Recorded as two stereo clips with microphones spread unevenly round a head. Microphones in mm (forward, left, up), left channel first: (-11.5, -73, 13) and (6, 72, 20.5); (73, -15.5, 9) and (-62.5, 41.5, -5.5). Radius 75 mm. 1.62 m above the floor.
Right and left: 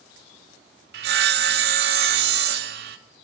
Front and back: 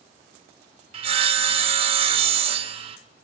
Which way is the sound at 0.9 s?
105° left.